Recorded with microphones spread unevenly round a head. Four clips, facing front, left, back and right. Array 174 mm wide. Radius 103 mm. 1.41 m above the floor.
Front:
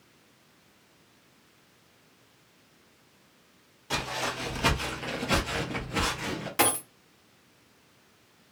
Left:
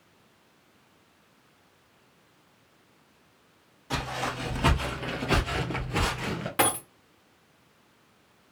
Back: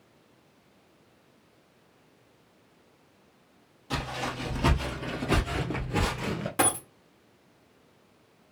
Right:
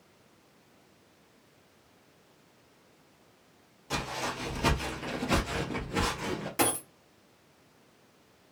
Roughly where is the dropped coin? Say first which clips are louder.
Left 3 dB, front 1 dB; left.